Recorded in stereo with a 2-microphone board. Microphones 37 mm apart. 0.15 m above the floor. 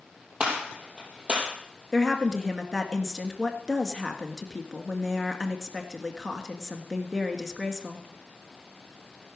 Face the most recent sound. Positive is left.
turn(degrees=-5)  # may be behind; listen again after turning